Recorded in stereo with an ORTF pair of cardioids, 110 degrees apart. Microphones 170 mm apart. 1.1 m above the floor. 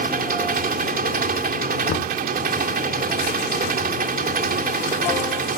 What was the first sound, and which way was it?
An engine running, 60° right.